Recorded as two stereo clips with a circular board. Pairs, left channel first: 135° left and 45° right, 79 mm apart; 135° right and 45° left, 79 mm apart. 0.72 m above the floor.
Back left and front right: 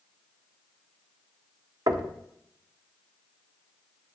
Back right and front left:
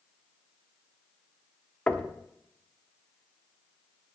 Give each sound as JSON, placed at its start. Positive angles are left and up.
{"t": 1.9, "sound": "knocking", "azimuth_deg": -60, "distance_m": 0.9}